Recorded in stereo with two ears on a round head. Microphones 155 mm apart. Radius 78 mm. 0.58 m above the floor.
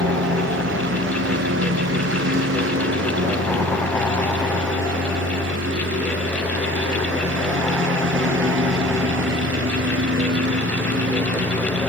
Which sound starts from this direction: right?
A lawn mower, at 0.0 s.